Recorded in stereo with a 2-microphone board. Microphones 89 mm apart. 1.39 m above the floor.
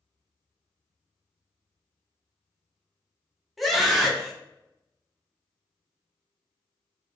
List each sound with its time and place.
3.6 s a scream: centre (ahead or behind), 1.2 m